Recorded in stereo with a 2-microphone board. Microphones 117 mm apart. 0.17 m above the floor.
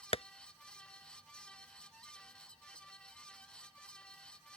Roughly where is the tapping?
Left.